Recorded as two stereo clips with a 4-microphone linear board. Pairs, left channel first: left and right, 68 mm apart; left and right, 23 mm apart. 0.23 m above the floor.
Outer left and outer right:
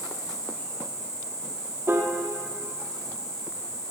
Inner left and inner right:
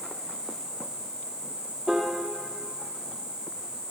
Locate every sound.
0.0 s an insect: 60° right (ahead or behind), 3.5 m
1.9 s a piano: 35° right (ahead or behind), 1.5 m